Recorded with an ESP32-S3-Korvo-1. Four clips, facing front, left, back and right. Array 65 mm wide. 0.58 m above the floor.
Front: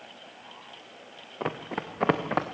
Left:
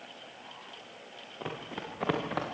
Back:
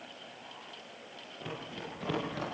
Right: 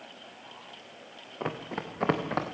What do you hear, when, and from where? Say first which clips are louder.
1.4 s running footsteps: right 5 dB, front 10 dB; 20° right, 2.5 m; by 2.4 s 10° right, 3 m